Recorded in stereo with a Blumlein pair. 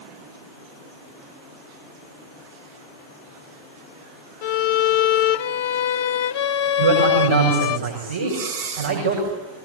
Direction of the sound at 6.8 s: 65° right.